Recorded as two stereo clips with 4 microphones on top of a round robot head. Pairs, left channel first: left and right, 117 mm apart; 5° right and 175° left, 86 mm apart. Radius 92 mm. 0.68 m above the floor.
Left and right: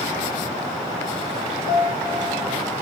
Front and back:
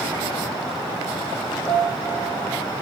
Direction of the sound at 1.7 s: 70° left.